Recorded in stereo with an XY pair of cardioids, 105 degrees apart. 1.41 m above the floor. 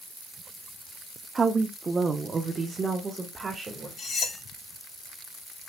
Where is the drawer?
No drawer in this recording.